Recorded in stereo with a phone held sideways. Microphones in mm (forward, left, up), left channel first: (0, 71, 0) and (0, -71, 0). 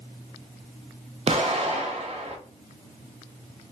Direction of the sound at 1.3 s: 45° right (ahead or behind).